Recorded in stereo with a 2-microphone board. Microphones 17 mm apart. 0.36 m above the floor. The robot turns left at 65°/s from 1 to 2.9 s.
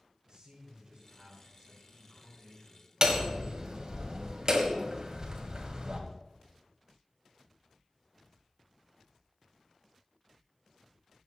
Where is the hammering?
40° right (ahead or behind), 1.7 m.